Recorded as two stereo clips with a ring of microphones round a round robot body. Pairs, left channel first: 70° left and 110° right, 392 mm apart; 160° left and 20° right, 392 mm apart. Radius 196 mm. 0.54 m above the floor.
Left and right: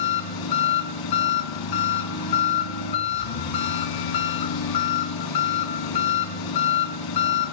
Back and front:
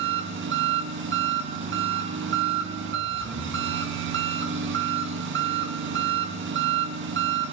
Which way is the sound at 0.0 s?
40° left.